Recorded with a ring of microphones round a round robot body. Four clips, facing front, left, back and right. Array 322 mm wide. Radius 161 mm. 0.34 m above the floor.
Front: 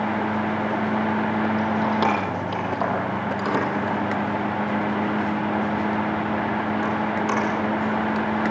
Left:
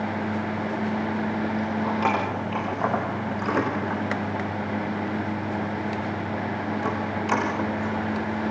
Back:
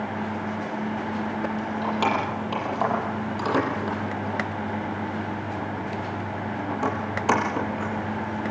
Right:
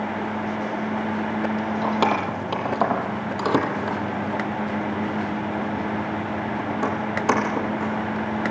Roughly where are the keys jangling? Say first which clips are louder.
Right 3 dB, front 4 dB; right.